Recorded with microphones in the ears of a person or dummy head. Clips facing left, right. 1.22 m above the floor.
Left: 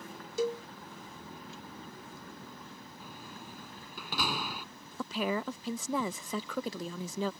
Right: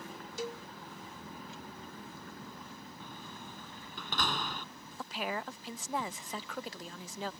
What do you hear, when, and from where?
0.4 s a cowbell: 65° left (ahead or behind)
3.0 s a door slam: 10° left (ahead or behind)
5.0 s a woman speaking: 85° left